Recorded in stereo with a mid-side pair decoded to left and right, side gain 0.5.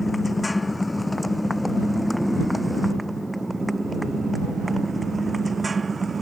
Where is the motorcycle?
15° left; by 6.2 s 30° right.